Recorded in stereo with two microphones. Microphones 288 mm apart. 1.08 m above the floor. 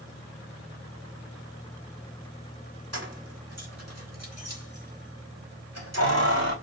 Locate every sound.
2.9 s keys jangling: 60° right (ahead or behind), 3.5 m; by 6.5 s 65° right (ahead or behind), 5 m